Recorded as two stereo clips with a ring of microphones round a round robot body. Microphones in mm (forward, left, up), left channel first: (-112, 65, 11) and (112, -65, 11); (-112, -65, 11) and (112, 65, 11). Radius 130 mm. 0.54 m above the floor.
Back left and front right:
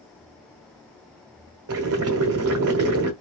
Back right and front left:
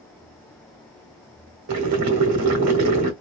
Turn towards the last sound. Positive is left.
turn(degrees=5)